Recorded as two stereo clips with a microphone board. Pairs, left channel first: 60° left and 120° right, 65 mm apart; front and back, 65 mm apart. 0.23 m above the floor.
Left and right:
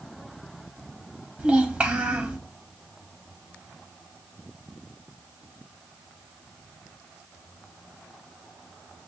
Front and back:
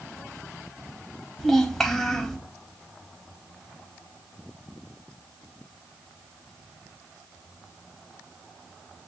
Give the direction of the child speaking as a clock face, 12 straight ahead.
3 o'clock.